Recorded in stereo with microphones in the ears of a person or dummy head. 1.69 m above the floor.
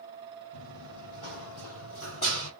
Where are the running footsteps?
50° left (ahead or behind), 3.5 m; by 2.5 s 40° left (ahead or behind), 2.5 m.